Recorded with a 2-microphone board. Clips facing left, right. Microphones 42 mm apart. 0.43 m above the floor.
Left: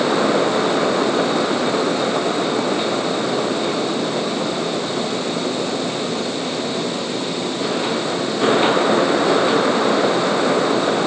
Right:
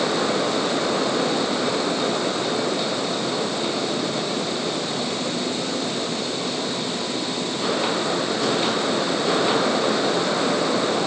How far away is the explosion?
No explosion in this recording.